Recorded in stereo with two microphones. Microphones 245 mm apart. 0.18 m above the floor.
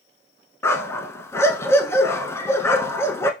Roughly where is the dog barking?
Centre.